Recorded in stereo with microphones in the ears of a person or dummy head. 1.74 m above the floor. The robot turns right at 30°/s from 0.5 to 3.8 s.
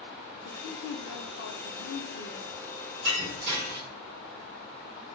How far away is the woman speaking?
About 0.5 m.